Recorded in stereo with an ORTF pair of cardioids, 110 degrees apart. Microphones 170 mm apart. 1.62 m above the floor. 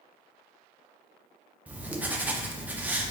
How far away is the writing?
About 0.5 m.